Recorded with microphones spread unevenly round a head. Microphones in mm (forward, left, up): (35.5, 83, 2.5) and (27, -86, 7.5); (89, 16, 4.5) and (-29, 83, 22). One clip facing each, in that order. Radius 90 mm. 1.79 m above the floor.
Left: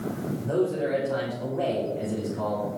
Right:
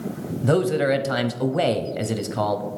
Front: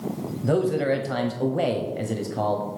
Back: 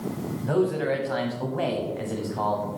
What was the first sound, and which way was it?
A man speaking, 90° right.